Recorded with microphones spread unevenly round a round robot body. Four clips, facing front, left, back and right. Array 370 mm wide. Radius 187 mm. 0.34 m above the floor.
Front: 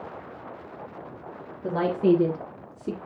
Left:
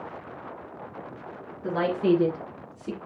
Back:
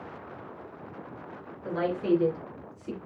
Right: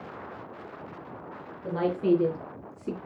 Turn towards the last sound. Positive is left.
turn(degrees=-15)